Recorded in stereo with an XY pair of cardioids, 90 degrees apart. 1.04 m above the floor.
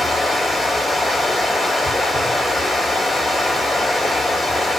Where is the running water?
5° left, 1.4 m.